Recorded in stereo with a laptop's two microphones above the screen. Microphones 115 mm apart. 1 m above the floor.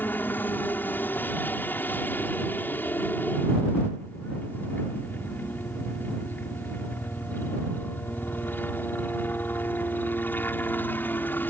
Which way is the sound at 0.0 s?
15° left (ahead or behind).